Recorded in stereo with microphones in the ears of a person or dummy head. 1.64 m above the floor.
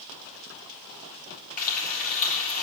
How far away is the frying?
About 3.5 m.